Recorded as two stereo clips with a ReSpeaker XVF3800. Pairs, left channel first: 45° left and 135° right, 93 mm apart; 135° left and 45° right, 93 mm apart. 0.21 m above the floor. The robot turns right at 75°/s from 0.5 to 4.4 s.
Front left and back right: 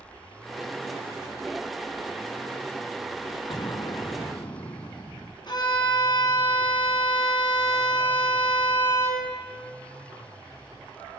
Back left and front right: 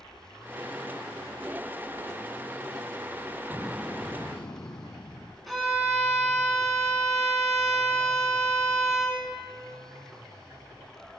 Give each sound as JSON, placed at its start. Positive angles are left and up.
{"t": 3.5, "sound": "an explosion", "azimuth_deg": 15, "distance_m": 0.5}
{"t": 5.5, "sound": "a violin", "azimuth_deg": 45, "distance_m": 2.0}